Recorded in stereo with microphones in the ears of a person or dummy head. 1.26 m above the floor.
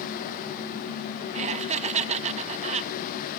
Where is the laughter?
45° right (ahead or behind).